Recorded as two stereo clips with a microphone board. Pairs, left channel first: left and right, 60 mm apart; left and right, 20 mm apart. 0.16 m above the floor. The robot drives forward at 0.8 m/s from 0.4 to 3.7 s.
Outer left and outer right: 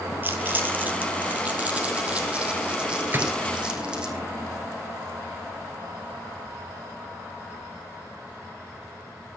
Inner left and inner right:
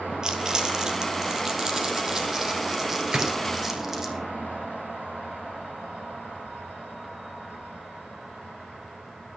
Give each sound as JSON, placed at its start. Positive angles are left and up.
{"t": 0.2, "sound": "crumpling", "side_deg": -35, "distance_m": 2.0}
{"t": 3.1, "sound": "a gunshot", "side_deg": -40, "distance_m": 2.5}